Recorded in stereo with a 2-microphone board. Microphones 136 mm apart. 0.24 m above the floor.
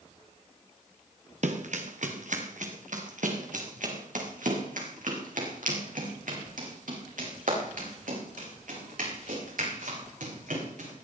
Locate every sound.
1.4 s running footsteps: 60° right (ahead or behind), 2.5 m; by 11.1 s 80° right, 11 m